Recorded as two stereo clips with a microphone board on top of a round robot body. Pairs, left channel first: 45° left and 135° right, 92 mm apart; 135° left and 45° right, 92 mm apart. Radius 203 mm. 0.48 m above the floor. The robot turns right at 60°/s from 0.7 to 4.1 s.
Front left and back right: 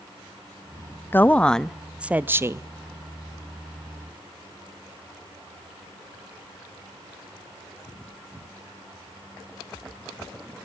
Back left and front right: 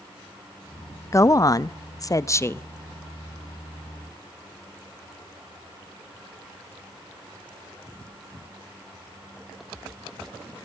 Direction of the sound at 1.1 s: 100° left.